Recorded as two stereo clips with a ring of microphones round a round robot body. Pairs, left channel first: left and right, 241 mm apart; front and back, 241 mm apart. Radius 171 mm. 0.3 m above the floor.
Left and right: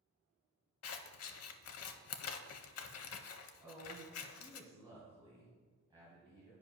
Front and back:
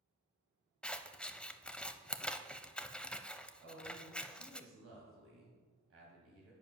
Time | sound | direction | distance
0.8 | scissors | 85° left | 0.6 m
3.6 | a woman speaking | 165° right | 2 m